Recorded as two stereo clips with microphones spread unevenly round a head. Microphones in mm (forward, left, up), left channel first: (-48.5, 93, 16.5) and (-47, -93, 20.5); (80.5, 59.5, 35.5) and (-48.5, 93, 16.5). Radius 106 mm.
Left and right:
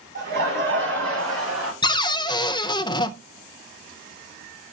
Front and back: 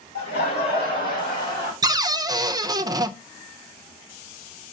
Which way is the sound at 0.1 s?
35° right.